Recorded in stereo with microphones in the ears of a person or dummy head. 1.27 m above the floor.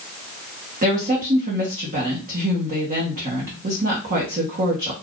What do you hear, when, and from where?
0.8 s a woman speaking: 40° right (ahead or behind), 1.1 m